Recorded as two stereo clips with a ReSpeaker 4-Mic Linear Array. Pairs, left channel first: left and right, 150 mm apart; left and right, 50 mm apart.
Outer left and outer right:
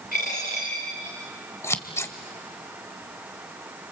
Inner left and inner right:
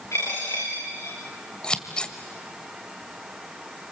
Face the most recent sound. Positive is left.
turn(degrees=20)  # may be behind; listen again after turning